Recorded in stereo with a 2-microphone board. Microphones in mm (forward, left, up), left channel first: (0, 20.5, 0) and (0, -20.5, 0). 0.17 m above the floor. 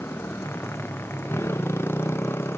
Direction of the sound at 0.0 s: 90° left.